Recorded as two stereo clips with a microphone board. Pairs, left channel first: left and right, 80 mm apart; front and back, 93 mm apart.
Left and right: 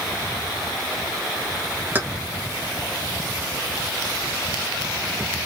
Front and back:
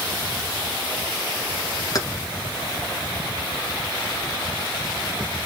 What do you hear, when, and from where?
1.9 s keys jangling: 30° right, 1.1 m